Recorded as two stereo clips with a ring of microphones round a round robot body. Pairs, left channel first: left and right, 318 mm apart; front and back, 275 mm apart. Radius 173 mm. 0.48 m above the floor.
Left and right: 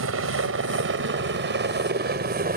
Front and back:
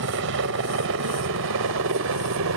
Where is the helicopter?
135° right; by 2.6 s 150° right.